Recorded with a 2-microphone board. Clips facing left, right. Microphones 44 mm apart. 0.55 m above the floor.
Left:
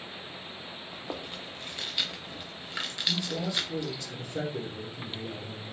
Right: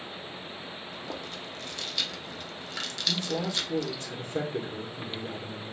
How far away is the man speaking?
About 1.3 m.